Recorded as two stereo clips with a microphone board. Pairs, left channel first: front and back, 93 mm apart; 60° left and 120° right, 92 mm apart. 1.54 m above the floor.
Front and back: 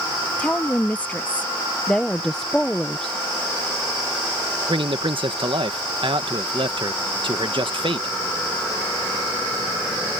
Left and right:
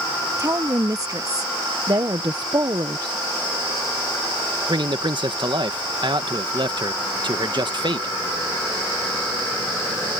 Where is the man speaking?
155° right.